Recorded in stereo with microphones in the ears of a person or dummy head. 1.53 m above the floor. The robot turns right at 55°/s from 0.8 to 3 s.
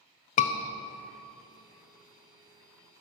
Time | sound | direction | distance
0.4 | a scream | 40° left (ahead or behind) | 0.5 m